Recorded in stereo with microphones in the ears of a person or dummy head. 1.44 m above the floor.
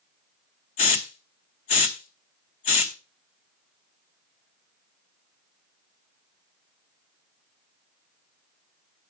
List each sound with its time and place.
0.8 s a hiss: 45° left (ahead or behind), 0.8 m